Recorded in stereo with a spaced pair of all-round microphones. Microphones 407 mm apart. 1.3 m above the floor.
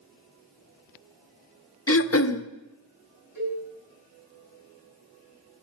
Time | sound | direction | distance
1.9 | throat clearing | 35° left (ahead or behind) | 0.6 m
3.4 | a cowbell | 60° right (ahead or behind) | 5.5 m